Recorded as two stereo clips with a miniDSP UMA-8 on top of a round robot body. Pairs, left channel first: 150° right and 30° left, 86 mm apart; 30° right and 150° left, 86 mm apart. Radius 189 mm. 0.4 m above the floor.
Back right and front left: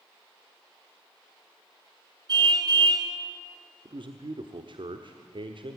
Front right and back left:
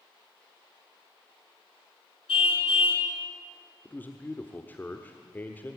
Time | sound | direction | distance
2.3 | a car horn | 15° right | 3.5 m
3.9 | a man speaking | 40° left | 1.4 m